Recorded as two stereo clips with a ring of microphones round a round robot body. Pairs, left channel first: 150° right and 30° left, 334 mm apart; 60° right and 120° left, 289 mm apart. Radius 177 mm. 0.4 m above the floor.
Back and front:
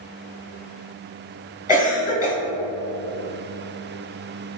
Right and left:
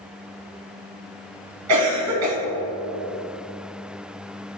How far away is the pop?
I don't hear a pop.